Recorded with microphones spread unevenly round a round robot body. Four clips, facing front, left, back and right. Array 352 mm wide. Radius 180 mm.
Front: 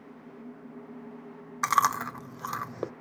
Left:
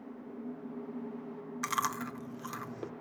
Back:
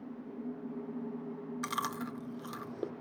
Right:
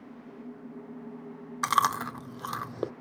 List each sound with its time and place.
1.6 s chewing: 50° right, 0.8 m